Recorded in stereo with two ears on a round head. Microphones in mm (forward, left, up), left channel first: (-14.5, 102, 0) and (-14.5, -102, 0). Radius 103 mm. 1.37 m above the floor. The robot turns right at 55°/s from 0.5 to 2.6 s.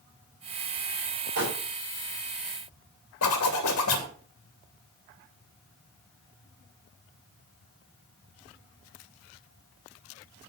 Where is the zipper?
75° left (ahead or behind), 2.5 m.